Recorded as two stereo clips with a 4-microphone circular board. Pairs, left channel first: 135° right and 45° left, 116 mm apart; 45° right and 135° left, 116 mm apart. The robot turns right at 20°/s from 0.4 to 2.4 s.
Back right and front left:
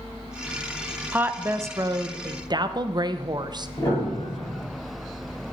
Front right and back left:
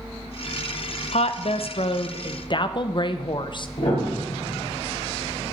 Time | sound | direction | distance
1.1 | a woman speaking | 30° right | 0.6 m
3.8 | a piano | 75° right | 5.5 m